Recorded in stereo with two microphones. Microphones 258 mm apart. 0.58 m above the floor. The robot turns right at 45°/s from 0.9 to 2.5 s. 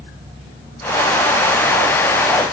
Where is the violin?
I don't hear a violin.